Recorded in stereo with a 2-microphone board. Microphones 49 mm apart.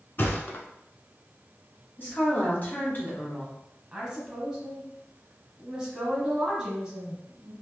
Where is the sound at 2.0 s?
40° left (ahead or behind), 1.8 m.